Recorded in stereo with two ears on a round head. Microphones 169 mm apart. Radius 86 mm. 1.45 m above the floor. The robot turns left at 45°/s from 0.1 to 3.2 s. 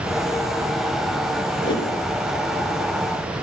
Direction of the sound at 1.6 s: 20° left (ahead or behind).